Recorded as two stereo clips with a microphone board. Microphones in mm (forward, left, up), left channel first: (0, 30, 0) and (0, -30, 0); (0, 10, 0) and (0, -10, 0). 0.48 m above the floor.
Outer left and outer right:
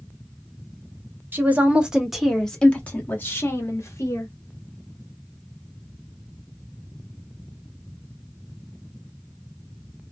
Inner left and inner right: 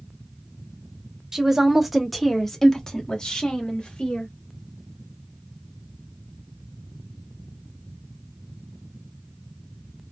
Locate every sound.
1.3 s a woman speaking: 30° right (ahead or behind), 1.2 m; by 4.3 s 50° left (ahead or behind), 2.0 m